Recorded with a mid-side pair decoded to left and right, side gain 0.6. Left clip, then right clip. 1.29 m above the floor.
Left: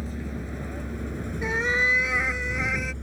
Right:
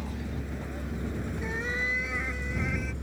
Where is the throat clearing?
No throat clearing in this recording.